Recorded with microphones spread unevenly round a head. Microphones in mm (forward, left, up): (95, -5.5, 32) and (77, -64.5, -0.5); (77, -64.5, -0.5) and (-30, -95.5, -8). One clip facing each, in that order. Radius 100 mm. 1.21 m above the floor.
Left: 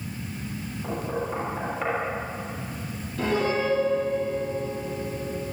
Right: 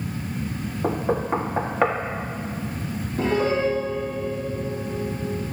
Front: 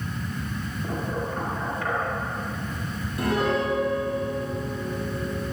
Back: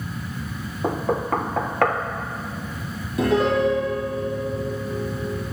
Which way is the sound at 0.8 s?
140° right.